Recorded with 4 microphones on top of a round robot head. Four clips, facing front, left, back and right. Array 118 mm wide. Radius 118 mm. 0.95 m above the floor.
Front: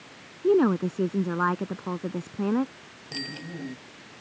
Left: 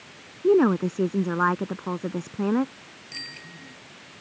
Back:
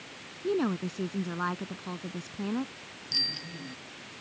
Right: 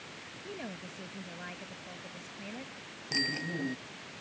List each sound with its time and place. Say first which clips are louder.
0.4 s a woman speaking: left 25 dB, front 8 dB; 60° left
3.1 s a bicycle bell: right 11 dB, front 7 dB; 55° right